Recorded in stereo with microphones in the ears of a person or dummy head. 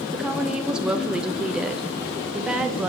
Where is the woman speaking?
5° right (ahead or behind), 0.8 m.